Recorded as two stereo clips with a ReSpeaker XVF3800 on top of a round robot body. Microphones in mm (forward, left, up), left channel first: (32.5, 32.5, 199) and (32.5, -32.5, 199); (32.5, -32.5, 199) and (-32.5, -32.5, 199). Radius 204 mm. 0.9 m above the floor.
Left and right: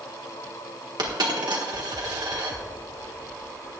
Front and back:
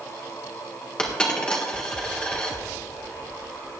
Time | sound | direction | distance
1.0 | a dropped coin | 80° right | 1.5 m